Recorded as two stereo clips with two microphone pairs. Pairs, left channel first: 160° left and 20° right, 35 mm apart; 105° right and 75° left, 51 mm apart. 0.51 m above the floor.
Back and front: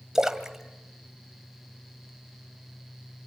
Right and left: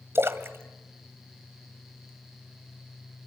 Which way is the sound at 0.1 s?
50° left.